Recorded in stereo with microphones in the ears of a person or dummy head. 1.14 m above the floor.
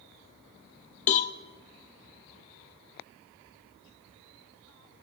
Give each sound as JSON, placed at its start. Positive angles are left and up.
{"t": 1.1, "sound": "a cowbell", "side_deg": 40, "distance_m": 0.7}